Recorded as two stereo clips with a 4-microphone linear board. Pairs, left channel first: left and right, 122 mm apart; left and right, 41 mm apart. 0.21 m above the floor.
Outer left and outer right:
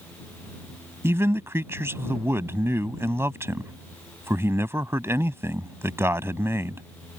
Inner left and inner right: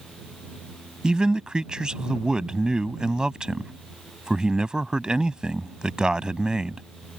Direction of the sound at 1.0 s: 20° right (ahead or behind).